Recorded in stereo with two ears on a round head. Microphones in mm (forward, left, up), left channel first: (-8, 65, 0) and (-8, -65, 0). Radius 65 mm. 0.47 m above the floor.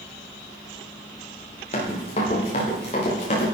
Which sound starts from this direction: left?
Running footsteps, at 1.7 s.